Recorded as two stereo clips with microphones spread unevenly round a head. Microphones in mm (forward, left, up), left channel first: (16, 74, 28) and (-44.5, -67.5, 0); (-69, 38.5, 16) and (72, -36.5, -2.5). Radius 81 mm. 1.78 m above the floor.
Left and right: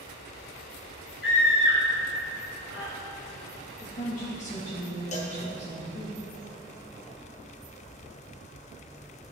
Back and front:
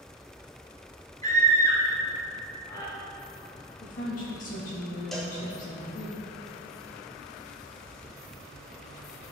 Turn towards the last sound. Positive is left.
turn(degrees=70)